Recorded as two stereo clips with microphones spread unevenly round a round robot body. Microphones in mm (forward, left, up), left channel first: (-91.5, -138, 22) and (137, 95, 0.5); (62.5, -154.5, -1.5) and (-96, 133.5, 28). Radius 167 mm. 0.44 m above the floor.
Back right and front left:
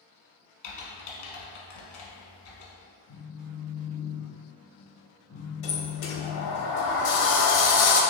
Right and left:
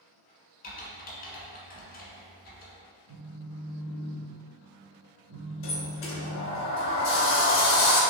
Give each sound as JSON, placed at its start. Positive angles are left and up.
{"t": 0.6, "sound": "typing on a keyboard", "azimuth_deg": -125, "distance_m": 1.2}
{"t": 3.1, "sound": "a phone buzzing", "azimuth_deg": 165, "distance_m": 0.8}
{"t": 5.6, "sound": "a sliding door", "azimuth_deg": -115, "distance_m": 0.8}